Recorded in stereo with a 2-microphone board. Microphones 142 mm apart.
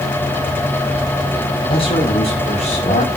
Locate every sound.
1.7 s a man speaking: 45° left (ahead or behind), 6 m; by 3.1 s 50° left (ahead or behind), 5.5 m